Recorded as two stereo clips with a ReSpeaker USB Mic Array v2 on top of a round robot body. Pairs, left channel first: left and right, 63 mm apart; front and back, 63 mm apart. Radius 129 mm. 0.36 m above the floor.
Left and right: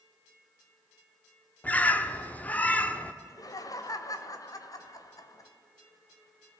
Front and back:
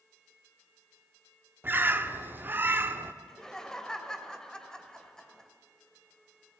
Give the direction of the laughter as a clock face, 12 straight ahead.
9 o'clock.